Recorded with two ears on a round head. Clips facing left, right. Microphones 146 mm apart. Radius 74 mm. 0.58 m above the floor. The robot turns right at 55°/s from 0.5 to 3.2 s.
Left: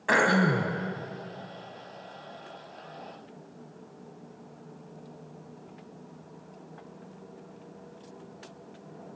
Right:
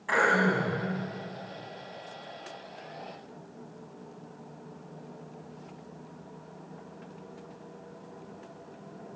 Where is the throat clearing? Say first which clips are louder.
Left 2 dB; 65° left (ahead or behind), 1.7 m; by 0.7 s 75° left (ahead or behind), 1.7 m.